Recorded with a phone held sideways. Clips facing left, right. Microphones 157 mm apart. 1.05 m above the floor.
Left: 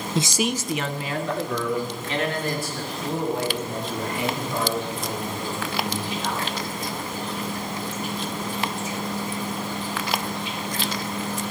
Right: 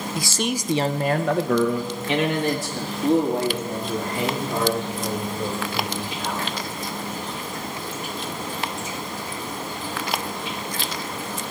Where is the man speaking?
30° left (ahead or behind), 0.6 m; by 6.5 s 80° right, 5.5 m.